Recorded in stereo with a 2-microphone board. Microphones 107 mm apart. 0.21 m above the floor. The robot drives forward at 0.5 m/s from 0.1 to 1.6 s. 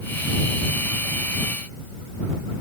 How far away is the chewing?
No chewing in this recording.